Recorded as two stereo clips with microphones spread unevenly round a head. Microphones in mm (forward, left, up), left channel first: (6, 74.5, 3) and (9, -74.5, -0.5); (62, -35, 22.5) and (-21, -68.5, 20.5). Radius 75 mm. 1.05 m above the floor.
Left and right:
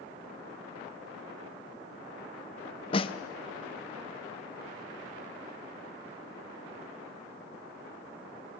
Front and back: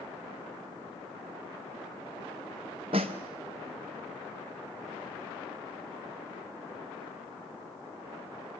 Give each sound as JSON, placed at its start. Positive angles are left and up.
{"t": 2.9, "sound": "a snare drum", "azimuth_deg": 150, "distance_m": 0.9}